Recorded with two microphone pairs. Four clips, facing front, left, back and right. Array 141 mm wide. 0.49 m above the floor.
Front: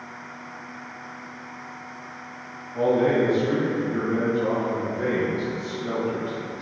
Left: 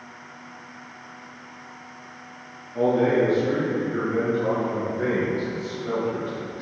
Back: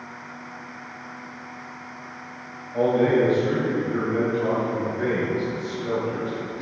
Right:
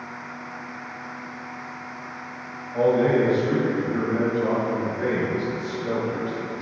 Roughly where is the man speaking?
Behind right.